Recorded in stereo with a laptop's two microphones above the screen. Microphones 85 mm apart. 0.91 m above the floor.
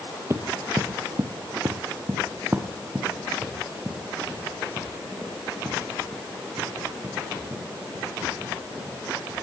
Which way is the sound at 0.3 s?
30° right (ahead or behind).